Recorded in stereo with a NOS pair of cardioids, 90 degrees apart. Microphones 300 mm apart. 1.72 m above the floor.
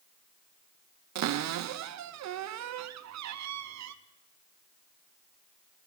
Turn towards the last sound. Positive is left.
turn(degrees=-65)